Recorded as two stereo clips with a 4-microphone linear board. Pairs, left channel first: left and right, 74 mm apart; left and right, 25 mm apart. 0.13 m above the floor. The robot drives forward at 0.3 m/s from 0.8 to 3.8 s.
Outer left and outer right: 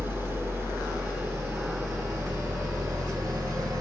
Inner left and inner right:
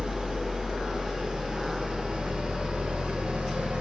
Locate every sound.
0.0 s an engine running: 35° right (ahead or behind), 1.6 m; by 3.8 s 55° right (ahead or behind), 1.2 m